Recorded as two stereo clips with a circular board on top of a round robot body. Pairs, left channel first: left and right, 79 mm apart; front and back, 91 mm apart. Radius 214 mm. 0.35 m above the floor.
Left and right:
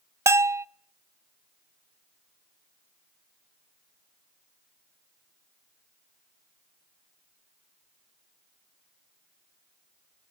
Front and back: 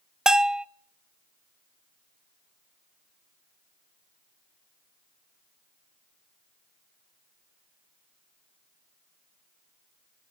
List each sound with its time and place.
0.3 s a bell: 105° right, 0.5 m